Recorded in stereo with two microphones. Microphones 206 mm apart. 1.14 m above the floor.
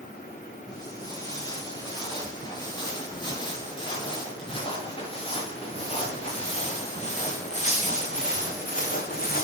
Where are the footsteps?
20° left (ahead or behind), 8.5 m; by 9.4 s 45° left (ahead or behind), 4 m.